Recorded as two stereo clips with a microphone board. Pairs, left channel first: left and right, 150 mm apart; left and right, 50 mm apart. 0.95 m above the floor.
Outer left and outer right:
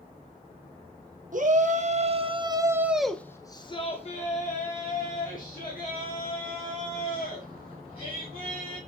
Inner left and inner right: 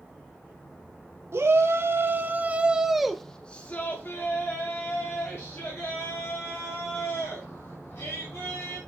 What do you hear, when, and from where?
1.3 s a shout: 60° right (ahead or behind), 1.1 m; by 8.8 s 80° left, 3.5 m